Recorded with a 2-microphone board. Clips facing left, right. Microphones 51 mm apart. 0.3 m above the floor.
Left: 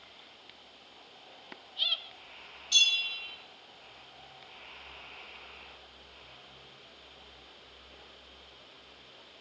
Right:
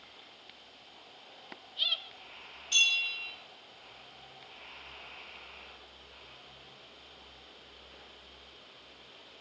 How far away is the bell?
About 0.7 m.